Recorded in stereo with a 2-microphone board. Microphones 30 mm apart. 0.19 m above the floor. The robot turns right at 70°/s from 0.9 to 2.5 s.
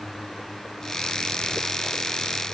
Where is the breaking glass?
No breaking glass in this recording.